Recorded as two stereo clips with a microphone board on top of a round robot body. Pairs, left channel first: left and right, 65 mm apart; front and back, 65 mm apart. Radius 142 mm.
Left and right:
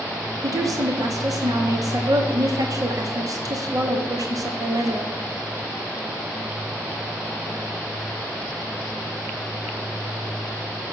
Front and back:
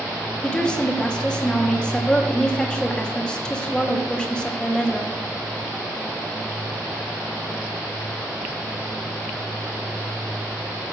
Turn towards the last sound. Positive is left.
turn(degrees=-75)